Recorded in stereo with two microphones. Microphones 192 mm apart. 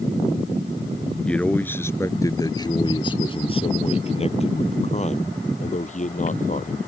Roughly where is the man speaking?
Centre.